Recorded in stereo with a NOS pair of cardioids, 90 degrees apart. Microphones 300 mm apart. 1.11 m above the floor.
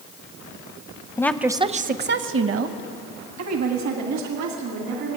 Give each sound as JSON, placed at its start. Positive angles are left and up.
{"t": 1.2, "sound": "a woman speaking", "azimuth_deg": 10, "distance_m": 0.6}